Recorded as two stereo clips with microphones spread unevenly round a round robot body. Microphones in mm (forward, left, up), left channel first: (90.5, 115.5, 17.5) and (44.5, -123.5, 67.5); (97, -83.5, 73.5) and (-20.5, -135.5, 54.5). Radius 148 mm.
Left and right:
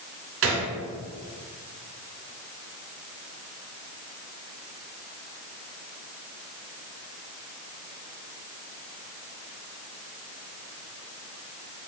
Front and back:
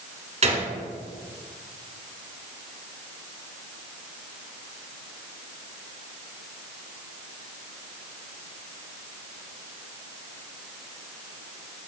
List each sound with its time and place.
0.4 s a gunshot: 145° right, 1.9 m